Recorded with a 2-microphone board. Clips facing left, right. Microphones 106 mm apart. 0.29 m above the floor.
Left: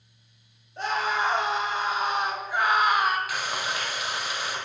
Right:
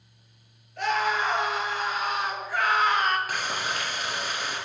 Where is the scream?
25° left (ahead or behind), 4.5 m; by 3.2 s 10° left (ahead or behind), 1.8 m.